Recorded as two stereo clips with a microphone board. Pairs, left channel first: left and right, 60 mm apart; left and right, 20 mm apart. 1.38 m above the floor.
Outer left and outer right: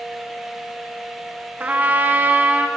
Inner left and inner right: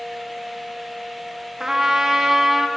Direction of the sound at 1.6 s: 30° right (ahead or behind).